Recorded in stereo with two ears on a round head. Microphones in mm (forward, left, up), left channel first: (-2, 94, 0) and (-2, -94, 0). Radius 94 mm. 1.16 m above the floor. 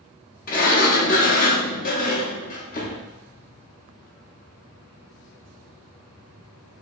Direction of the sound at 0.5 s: 40° left (ahead or behind).